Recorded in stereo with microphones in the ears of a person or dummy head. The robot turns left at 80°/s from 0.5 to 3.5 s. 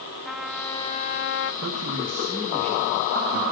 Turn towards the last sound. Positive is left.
turn(degrees=105)